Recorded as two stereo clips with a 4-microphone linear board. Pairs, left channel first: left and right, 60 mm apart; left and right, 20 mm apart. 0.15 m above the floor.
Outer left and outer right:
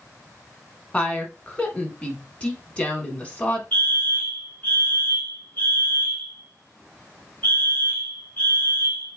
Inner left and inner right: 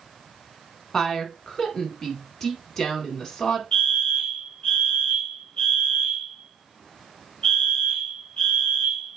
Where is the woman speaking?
20° left (ahead or behind), 1.2 m.